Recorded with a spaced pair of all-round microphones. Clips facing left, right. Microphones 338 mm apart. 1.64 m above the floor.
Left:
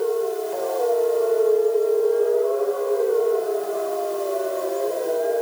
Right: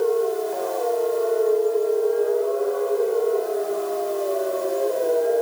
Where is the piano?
No piano in this recording.